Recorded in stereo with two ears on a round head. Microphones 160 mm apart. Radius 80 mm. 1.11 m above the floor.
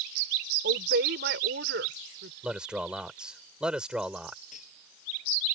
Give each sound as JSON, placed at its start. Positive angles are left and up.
{"t": 0.6, "sound": "a woman speaking", "side_deg": -60}
{"t": 2.4, "sound": "a man speaking", "side_deg": -5}
{"t": 4.5, "sound": "cutlery clinking", "side_deg": 40}